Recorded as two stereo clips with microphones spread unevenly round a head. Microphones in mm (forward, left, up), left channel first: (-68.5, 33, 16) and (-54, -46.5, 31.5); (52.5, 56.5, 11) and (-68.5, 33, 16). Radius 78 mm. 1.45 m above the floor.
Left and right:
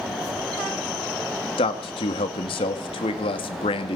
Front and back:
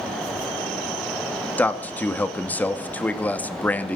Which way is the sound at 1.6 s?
85° left.